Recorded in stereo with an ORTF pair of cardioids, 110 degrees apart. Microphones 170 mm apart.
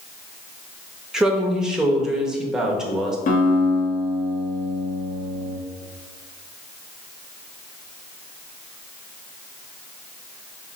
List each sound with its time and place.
1.1 s a woman speaking: 5° right, 1.0 m
3.3 s a guitar: 50° left, 1.5 m